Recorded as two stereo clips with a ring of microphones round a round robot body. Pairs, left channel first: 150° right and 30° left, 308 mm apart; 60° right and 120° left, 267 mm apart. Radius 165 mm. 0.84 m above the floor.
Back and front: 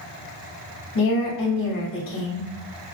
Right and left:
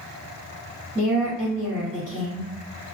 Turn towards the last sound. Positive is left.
turn(degrees=-160)